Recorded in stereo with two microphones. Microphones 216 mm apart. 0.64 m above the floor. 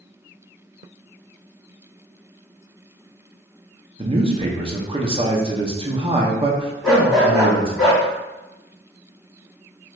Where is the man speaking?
25° right (ahead or behind), 0.6 m.